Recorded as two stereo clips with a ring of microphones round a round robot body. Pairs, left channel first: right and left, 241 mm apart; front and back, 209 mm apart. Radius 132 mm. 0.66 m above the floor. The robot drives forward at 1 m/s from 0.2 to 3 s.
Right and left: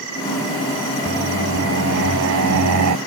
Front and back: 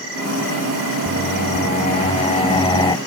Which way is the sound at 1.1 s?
50° left.